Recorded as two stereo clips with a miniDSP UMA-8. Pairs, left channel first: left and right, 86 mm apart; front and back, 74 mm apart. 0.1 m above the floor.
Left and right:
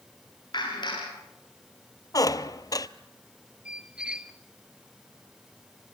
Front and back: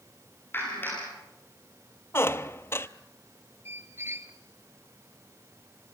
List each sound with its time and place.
0.5 s a clap: 60° left, 8.5 m
2.1 s a squeak: 50° left, 0.5 m
3.6 s a squeak: 160° right, 0.8 m